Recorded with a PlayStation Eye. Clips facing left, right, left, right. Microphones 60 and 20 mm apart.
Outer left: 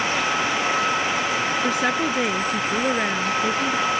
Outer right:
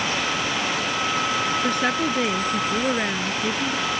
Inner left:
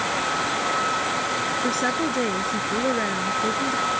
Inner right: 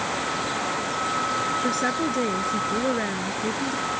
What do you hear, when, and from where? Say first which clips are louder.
1.6 s a woman speaking: outer left 1 dB, inner left 1 dB; 5° left (ahead or behind)